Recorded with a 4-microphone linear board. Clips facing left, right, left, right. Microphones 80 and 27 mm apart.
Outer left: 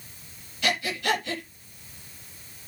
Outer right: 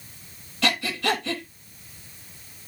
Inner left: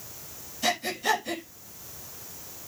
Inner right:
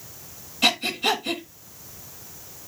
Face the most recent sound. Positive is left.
turn(degrees=-85)